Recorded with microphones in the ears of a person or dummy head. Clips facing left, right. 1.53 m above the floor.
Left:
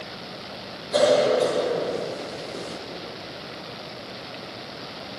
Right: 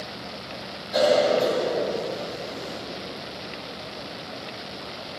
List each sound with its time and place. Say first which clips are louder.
0.9 s a cough: left 1 dB; 65° left (ahead or behind), 7.5 m